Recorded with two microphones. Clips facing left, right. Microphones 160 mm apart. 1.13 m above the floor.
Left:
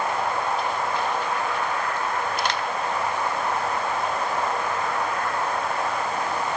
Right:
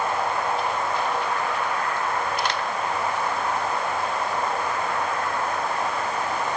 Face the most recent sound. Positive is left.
No sound to turn to.